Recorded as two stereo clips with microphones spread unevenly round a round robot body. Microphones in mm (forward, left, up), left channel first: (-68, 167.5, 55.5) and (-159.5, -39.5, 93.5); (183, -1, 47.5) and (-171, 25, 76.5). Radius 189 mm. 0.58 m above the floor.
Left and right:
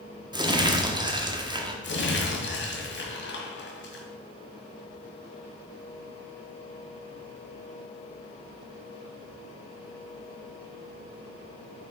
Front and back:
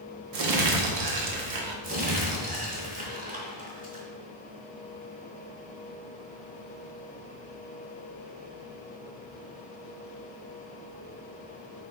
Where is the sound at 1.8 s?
105° left, 1.8 m.